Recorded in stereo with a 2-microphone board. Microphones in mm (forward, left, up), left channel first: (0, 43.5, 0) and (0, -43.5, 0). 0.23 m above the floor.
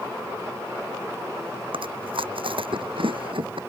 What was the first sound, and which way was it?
Chewing, 80° right.